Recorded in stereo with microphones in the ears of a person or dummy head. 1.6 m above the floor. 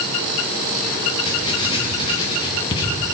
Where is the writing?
30° left (ahead or behind), 1.8 m.